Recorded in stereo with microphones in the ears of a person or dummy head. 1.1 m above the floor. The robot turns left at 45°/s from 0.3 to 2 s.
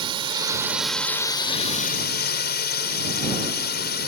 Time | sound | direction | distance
0.0 | a drone | 160° right | ?